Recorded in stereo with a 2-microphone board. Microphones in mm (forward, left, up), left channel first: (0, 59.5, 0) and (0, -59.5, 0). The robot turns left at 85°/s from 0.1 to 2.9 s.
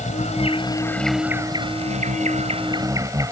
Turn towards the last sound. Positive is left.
turn(degrees=-150)